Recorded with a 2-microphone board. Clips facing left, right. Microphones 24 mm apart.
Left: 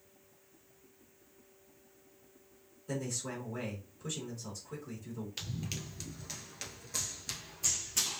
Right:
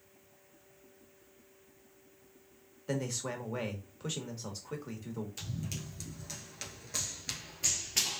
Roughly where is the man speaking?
Right.